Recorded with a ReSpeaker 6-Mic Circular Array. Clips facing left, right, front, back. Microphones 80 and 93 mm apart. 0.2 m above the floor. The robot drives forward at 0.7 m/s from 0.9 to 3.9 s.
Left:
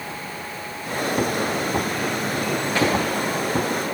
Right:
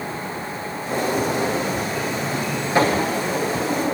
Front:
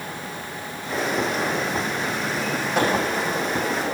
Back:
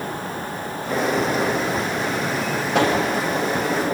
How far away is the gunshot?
About 7.5 m.